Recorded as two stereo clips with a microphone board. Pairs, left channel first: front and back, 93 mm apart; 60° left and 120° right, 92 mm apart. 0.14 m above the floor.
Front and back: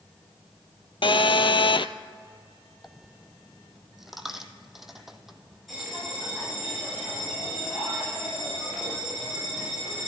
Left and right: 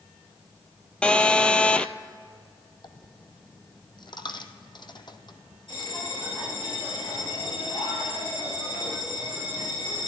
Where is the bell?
90° left, 8 m.